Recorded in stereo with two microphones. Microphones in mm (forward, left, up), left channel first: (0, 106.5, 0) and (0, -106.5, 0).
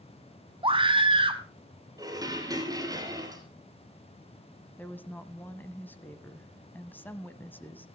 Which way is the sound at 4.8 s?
10° left (ahead or behind).